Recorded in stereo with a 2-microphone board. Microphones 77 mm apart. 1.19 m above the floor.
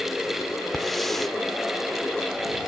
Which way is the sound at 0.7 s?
5° left (ahead or behind).